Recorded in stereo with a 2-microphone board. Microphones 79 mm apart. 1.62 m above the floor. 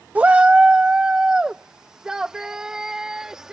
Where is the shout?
20° right (ahead or behind); by 3.5 s 5° right (ahead or behind).